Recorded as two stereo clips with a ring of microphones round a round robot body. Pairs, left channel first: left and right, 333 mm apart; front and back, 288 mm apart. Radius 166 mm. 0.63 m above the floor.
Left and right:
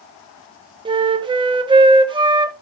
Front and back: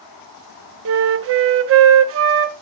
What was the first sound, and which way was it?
A flute, 160° right.